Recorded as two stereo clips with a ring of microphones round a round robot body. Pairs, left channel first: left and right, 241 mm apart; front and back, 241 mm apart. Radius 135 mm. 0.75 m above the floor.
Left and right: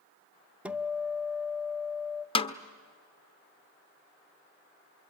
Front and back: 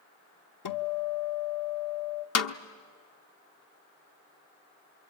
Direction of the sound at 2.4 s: 20° left.